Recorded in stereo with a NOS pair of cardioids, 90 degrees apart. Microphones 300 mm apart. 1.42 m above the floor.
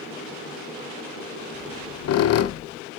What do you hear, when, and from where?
1.5 s a squeak: 60° left, 0.8 m